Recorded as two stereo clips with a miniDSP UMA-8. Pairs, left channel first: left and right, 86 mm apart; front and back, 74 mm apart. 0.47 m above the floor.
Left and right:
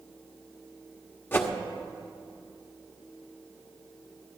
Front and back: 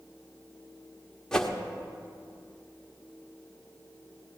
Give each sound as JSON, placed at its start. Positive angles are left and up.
{"t": 1.3, "sound": "a whoosh", "azimuth_deg": 70, "distance_m": 1.1}